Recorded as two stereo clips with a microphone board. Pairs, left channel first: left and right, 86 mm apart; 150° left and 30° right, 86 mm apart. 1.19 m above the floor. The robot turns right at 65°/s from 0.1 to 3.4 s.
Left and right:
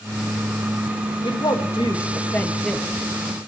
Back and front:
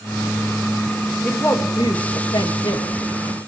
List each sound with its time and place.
1.2 s a woman speaking: 80° left, 1.8 m; by 3.0 s 165° right, 1.8 m